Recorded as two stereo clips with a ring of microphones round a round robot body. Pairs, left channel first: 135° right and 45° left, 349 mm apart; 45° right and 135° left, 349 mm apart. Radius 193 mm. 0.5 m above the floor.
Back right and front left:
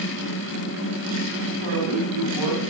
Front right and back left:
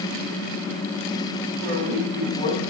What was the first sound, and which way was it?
A woman speaking, 30° left.